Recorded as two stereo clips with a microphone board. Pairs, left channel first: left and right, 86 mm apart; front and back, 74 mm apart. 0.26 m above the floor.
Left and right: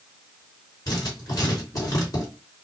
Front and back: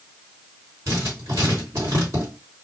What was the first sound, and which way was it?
Writing, 135° left.